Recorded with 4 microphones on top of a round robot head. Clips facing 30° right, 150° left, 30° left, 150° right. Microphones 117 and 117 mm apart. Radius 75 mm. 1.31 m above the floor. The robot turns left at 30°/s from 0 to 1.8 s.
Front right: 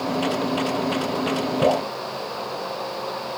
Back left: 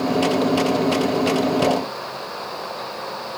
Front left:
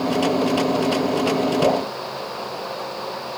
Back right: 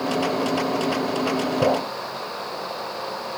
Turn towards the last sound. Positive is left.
turn(degrees=-100)